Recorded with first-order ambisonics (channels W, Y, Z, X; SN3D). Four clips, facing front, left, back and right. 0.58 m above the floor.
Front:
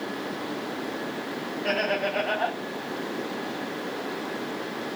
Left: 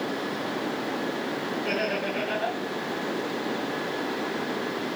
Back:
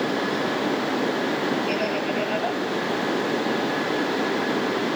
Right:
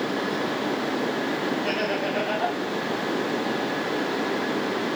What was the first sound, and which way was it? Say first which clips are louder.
Laughter: right 2 dB, back 1 dB; 35° right.